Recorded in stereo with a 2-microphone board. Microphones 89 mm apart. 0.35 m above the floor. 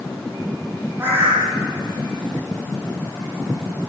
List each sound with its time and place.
1.0 s a bird: 25° right (ahead or behind), 7.5 m